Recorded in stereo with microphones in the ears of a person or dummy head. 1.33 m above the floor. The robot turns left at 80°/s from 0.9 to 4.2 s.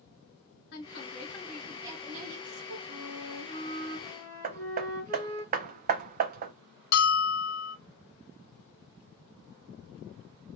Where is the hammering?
45° right (ahead or behind), 0.5 m.